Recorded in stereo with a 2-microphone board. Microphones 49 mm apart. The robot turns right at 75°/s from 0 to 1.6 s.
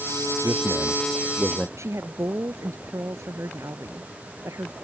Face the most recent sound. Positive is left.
turn(degrees=-75)  # may be behind; listen again after turning